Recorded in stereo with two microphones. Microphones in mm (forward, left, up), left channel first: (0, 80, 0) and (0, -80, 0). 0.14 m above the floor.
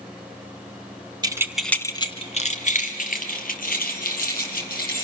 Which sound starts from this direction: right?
Keys jangling, at 1.2 s.